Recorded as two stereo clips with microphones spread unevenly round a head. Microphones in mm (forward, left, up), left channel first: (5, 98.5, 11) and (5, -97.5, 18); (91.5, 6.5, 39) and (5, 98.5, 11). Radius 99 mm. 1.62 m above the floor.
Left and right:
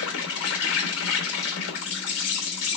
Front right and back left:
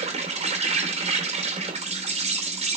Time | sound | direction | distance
0.0 | an insect | 95° left | 2.5 m